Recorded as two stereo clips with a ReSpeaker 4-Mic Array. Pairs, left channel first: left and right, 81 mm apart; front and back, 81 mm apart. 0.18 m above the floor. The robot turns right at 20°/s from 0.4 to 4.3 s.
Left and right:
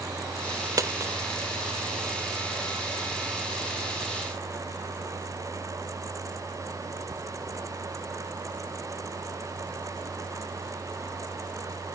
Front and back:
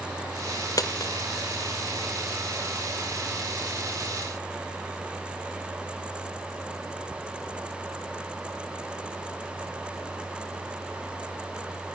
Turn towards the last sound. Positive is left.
turn(degrees=25)